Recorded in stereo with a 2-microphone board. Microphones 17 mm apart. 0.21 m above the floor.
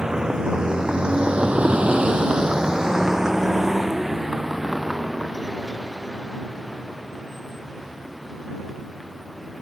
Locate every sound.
0.0 s a vehicle: 25° right (ahead or behind); by 9.6 s 5° right (ahead or behind)